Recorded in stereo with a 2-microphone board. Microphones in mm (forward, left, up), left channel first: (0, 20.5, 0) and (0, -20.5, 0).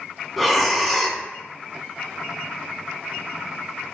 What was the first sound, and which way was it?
Breathing, centre (ahead or behind).